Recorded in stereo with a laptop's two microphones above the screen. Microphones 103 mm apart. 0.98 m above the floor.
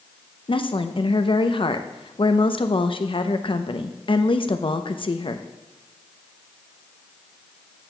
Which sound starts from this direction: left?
A woman speaking, at 0.5 s.